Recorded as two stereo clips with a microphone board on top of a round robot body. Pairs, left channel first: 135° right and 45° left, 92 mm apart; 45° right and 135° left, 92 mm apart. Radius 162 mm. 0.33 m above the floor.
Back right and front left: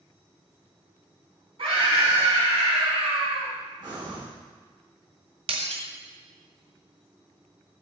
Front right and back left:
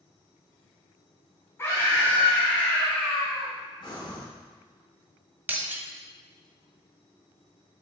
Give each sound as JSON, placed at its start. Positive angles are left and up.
{"t": 1.6, "sound": "a scream", "azimuth_deg": 20, "distance_m": 3.5}
{"t": 3.8, "sound": "breathing", "azimuth_deg": -5, "distance_m": 4.5}
{"t": 5.5, "sound": "breaking glass", "azimuth_deg": 60, "distance_m": 2.0}